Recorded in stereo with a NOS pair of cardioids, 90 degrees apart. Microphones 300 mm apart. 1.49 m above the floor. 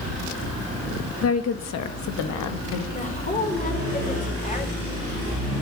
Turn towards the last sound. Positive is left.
turn(degrees=25)